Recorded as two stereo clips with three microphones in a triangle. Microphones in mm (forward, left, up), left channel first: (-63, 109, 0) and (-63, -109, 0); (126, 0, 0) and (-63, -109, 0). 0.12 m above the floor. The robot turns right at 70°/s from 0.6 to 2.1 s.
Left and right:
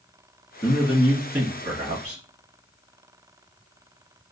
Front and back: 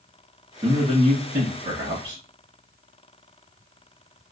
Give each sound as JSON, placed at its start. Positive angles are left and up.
{"t": 0.6, "sound": "a man speaking", "azimuth_deg": 155, "distance_m": 1.7}